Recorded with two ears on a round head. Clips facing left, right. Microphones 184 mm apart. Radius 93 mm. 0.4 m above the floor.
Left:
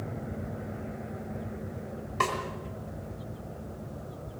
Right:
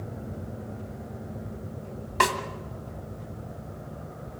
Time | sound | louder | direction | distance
2.2 | a snare drum | right 5 dB | 70° right (ahead or behind) | 2 m